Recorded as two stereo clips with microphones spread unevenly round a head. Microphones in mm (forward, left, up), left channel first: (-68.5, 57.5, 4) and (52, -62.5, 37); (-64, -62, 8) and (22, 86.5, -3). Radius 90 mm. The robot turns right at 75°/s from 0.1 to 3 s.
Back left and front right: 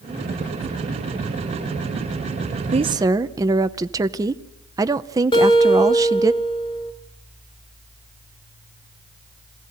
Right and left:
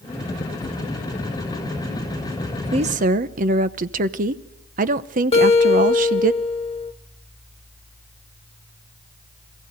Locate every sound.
2.7 s a woman speaking: 10° left, 0.8 m; by 6.3 s 30° left, 0.8 m
5.3 s a guitar: 160° right, 1.2 m